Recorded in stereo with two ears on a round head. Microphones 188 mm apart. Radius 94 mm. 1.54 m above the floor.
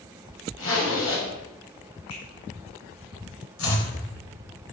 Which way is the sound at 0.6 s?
70° left (ahead or behind).